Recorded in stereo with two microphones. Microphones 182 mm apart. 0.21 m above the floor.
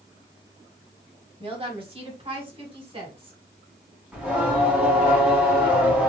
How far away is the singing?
About 1.7 m.